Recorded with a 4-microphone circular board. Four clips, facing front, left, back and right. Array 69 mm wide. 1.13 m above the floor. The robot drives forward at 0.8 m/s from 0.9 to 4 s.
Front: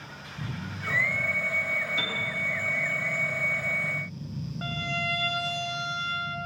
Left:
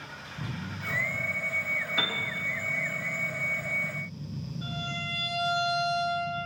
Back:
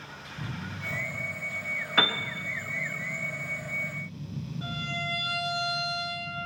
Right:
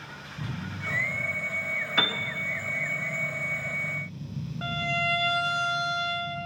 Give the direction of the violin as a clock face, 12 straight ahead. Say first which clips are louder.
Right 9 dB, front 4 dB; 2 o'clock.